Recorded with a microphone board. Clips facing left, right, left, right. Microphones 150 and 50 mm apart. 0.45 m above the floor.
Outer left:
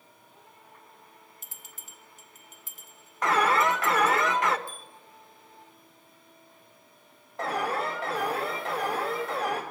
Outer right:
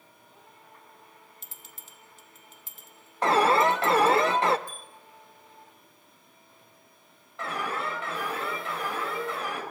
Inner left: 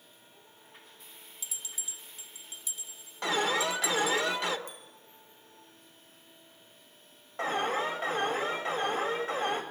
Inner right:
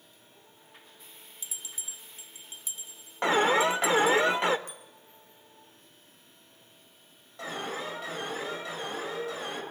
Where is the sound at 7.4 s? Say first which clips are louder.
Outer left 3 dB, inner left 6 dB; 40° left (ahead or behind), 3.5 m.